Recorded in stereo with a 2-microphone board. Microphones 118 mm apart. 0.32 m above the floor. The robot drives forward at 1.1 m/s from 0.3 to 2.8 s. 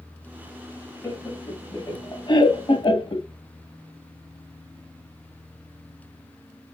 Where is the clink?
I don't hear a clink.